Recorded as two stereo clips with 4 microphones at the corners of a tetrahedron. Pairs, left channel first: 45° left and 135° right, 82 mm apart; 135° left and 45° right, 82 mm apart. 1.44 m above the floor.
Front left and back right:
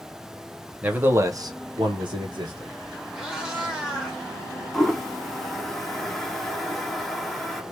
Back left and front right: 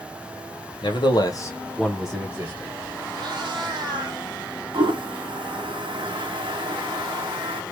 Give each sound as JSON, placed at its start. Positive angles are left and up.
{"t": 0.8, "sound": "a man speaking", "azimuth_deg": 150, "distance_m": 1.2}
{"t": 3.1, "sound": "a cat meowing", "azimuth_deg": -55, "distance_m": 1.3}
{"t": 4.7, "sound": "a toilet flushing", "azimuth_deg": -40, "distance_m": 0.8}